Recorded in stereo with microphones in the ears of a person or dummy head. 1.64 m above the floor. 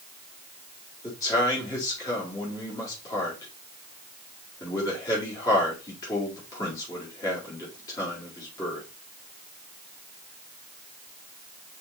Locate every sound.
1.0 s a man speaking: 25° left (ahead or behind), 4.5 m